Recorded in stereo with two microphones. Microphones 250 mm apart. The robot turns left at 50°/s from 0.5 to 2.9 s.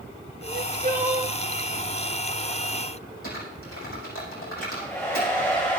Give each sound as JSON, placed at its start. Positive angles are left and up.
{"t": 0.4, "sound": "crying", "azimuth_deg": -110, "distance_m": 1.8}
{"t": 3.2, "sound": "typing on a keyboard", "side_deg": 60, "distance_m": 7.0}
{"t": 4.6, "sound": "a hair dryer", "side_deg": 10, "distance_m": 9.5}